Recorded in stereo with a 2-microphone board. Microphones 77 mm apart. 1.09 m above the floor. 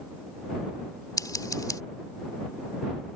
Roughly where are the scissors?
Left.